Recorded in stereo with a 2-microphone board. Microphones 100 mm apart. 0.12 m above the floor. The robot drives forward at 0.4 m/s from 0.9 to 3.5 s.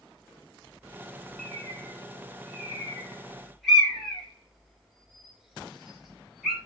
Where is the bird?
Centre (ahead or behind), 2 m.